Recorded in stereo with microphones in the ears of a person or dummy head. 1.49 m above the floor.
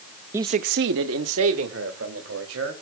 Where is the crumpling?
No crumpling in this recording.